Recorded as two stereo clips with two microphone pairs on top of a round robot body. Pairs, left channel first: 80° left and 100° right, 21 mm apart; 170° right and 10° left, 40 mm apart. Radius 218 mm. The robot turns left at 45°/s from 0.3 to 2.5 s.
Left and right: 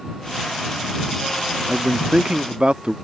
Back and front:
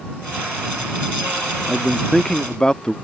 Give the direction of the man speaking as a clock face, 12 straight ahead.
2 o'clock.